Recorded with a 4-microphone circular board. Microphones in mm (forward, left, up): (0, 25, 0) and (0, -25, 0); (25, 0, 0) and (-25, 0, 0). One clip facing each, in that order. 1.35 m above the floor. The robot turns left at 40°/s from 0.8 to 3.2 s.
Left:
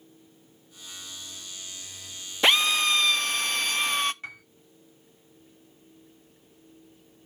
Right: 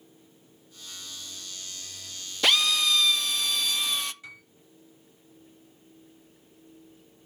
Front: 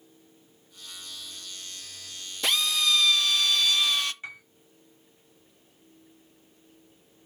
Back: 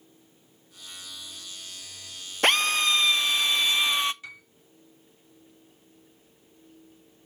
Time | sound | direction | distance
2.4 | a drill | 150° left | 0.5 m
4.2 | a piano | 60° left | 2.5 m